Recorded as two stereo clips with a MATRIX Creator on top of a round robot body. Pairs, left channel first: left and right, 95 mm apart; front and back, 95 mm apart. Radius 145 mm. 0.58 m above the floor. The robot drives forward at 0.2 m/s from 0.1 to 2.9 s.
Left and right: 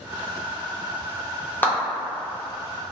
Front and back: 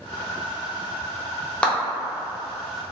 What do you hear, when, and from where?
1.6 s a clap: 60° left, 1.0 m; by 1.8 s 65° left, 0.9 m